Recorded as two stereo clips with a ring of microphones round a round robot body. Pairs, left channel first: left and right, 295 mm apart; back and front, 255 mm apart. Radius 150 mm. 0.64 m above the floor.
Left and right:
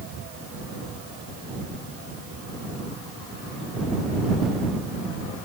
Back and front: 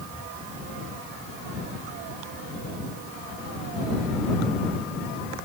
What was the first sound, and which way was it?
Only background noise.